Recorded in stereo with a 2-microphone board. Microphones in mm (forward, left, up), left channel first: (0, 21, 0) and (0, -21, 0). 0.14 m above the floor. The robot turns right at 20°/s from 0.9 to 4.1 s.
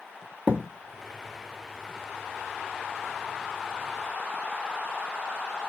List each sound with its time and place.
0.5 s a thud: 35° right (ahead or behind), 1.2 m